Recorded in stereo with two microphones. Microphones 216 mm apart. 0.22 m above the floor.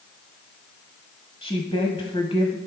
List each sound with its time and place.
1.4 s a woman speaking: 25° left (ahead or behind), 1.2 m